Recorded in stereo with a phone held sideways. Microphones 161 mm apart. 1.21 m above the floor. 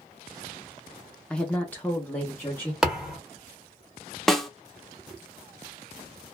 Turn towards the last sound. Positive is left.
turn(degrees=5)  # may be behind; listen again after turning